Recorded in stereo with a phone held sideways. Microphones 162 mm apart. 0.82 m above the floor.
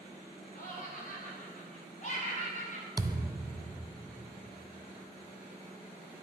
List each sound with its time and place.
0.6 s laughter: 65° left (ahead or behind), 6.5 m; by 2.9 s 50° left (ahead or behind), 8 m
3.0 s a thud: 25° right (ahead or behind), 0.8 m